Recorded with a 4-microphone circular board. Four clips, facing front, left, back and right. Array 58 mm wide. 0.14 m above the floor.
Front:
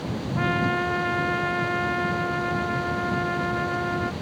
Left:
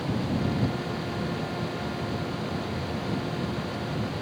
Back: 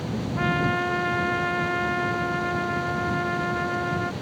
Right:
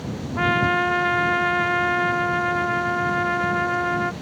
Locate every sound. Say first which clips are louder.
0.3 s a trumpet: right 9 dB, even; 90° right